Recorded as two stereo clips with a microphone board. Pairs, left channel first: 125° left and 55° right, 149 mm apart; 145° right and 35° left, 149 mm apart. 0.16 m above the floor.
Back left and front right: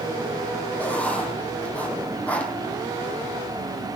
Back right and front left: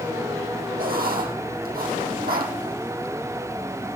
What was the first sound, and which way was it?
Writing, 45° left.